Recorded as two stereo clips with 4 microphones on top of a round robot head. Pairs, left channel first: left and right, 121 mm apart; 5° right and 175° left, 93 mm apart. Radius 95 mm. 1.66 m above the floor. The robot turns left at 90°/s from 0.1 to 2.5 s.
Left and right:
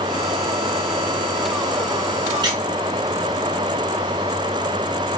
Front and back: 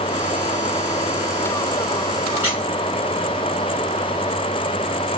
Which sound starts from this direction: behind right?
A squeak, at 2.4 s.